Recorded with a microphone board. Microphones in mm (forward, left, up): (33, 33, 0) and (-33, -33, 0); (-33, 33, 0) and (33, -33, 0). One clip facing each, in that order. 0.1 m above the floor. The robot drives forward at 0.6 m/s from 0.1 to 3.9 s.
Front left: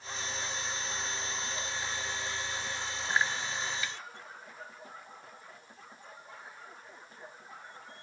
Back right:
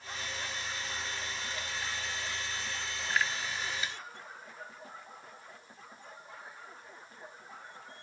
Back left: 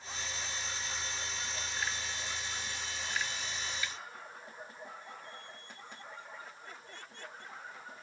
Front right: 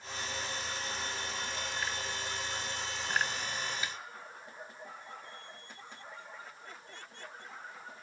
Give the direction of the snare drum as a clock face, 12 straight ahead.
3 o'clock.